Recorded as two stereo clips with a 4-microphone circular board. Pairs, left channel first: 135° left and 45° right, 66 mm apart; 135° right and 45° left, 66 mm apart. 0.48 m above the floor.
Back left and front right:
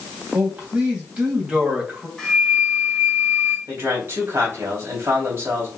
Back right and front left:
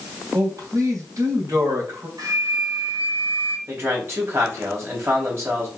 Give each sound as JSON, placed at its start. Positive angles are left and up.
{"t": 0.3, "sound": "a man speaking", "azimuth_deg": 25, "distance_m": 3.0}
{"t": 2.2, "sound": "a flute", "azimuth_deg": 55, "distance_m": 2.5}
{"t": 3.7, "sound": "a man speaking", "azimuth_deg": 5, "distance_m": 3.0}